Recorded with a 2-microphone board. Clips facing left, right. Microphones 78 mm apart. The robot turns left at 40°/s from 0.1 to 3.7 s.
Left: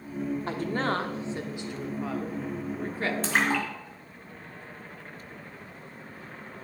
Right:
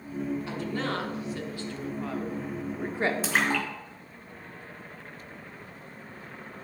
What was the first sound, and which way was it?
A woman speaking, 50° left (ahead or behind).